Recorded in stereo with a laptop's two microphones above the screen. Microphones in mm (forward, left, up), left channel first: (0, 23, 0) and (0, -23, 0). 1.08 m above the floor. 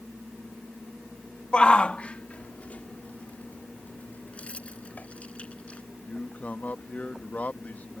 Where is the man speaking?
35° left (ahead or behind).